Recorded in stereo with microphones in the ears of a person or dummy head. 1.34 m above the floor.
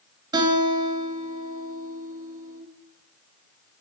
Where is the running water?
I don't hear running water.